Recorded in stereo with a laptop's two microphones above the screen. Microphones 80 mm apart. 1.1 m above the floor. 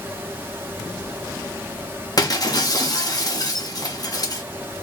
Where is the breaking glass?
50° left (ahead or behind), 0.6 m.